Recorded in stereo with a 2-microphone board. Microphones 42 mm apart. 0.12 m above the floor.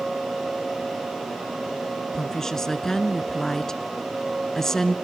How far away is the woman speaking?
About 1.5 m.